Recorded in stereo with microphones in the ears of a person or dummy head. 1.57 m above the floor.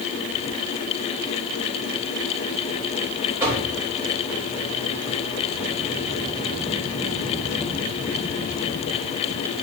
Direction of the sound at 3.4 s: 15° right (ahead or behind).